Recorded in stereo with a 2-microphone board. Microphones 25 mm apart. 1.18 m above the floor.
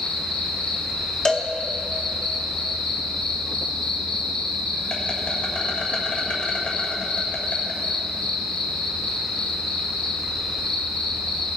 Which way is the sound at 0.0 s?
70° left (ahead or behind).